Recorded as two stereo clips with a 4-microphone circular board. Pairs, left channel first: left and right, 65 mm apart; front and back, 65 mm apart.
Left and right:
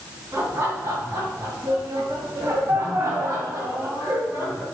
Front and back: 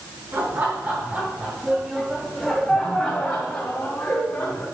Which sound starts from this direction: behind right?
Laughter, at 0.3 s.